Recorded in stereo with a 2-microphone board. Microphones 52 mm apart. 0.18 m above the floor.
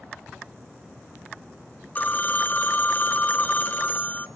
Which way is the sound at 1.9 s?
30° left (ahead or behind).